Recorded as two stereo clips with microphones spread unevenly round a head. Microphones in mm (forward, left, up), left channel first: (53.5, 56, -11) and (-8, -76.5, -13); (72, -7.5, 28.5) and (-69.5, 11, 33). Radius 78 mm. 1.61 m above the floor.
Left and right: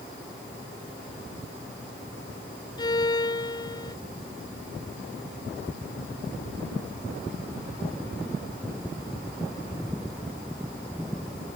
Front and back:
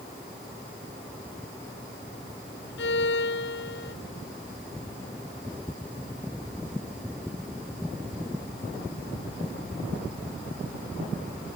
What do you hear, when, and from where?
2.8 s a violin: 5° left